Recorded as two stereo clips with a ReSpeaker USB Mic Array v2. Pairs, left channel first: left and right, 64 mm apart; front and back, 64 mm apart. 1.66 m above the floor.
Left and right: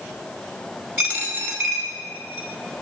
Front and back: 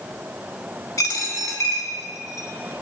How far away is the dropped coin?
About 5 m.